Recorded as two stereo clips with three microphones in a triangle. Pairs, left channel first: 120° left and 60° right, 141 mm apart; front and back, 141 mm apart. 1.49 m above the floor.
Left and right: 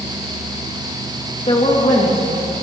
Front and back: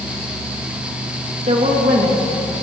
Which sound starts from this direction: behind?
A woman speaking, at 1.5 s.